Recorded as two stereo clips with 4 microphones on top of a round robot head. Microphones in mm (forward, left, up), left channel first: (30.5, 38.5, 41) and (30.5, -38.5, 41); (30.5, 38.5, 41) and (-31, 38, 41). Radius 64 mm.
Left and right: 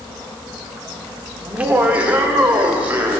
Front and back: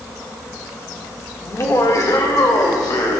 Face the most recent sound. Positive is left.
turn(degrees=-20)